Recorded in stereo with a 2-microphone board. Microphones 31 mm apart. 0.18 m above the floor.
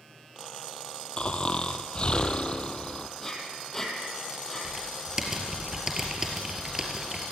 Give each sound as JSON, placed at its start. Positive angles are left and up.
{"t": 1.2, "sound": "snoring", "side_deg": 35, "distance_m": 1.4}
{"t": 3.2, "sound": "breathing", "side_deg": 15, "distance_m": 4.0}
{"t": 4.6, "sound": "typing on a keyboard", "side_deg": -20, "distance_m": 4.5}